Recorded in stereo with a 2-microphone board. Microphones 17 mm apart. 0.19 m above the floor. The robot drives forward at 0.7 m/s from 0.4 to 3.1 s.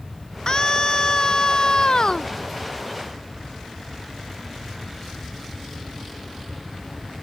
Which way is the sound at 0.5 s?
45° left (ahead or behind).